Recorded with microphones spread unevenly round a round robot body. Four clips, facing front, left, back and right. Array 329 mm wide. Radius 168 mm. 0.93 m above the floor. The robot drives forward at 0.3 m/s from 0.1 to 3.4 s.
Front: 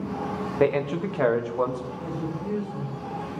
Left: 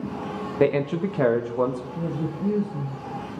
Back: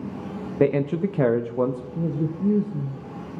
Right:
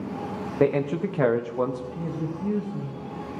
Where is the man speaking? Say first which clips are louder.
Left 1 dB, back 2 dB; 170° left, 0.5 m; by 1.8 s 175° left, 0.8 m.